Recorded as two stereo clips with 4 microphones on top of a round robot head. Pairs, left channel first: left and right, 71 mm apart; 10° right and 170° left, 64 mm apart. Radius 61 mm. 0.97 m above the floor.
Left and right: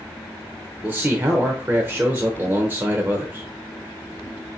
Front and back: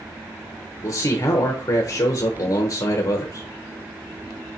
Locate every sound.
0.8 s a man speaking: 25° right, 0.8 m